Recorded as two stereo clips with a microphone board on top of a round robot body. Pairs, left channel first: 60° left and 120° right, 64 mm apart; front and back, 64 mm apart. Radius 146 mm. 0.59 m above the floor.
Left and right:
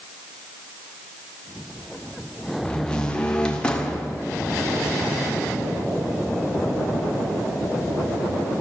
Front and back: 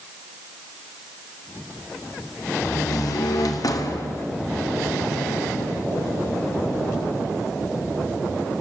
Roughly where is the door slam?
Ahead.